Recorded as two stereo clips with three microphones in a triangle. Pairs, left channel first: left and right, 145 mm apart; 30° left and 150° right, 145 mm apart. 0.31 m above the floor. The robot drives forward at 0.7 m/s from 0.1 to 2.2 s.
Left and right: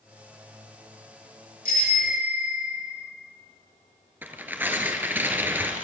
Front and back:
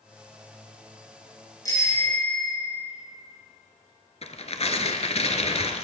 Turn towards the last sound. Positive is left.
turn(degrees=-15)